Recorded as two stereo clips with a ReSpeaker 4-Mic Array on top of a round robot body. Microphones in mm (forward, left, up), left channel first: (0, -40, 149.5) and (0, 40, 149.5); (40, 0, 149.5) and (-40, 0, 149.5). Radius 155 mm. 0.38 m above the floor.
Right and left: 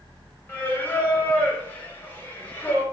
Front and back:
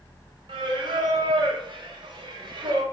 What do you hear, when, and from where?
0.5 s singing: 160° right, 0.6 m